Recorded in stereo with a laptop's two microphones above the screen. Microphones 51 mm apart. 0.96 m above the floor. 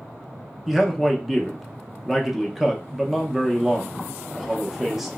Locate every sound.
0.7 s a man speaking: 5° right (ahead or behind), 0.5 m